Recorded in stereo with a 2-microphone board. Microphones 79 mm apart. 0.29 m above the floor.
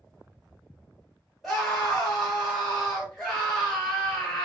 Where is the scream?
5° left (ahead or behind), 1.0 m.